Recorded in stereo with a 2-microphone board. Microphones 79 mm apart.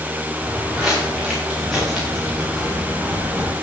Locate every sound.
0.4 s footsteps: 5° right (ahead or behind), 8 m